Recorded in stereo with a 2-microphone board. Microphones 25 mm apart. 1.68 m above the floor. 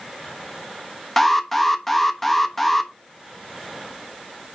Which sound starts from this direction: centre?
An alarm, at 1.2 s.